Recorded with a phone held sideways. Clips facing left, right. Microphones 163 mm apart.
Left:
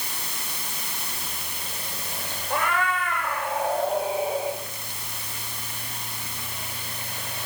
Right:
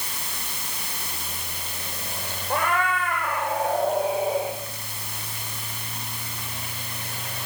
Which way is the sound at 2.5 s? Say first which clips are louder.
Right 1 dB; 40° right (ahead or behind).